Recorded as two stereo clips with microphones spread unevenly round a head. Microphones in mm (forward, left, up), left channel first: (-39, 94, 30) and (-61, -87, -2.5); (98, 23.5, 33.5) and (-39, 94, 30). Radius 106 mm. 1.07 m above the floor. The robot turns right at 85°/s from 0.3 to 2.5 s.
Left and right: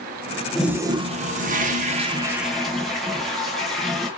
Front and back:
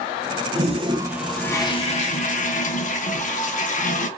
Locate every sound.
0.6 s a toilet flushing: straight behind, 0.8 m; by 4.1 s 15° right, 0.8 m